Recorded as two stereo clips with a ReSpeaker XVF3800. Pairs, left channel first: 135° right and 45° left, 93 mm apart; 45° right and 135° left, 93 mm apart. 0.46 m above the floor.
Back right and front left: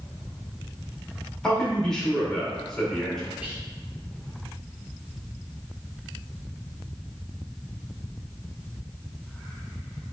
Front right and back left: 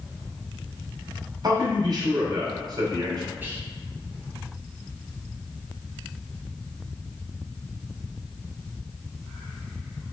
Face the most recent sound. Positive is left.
turn(degrees=95)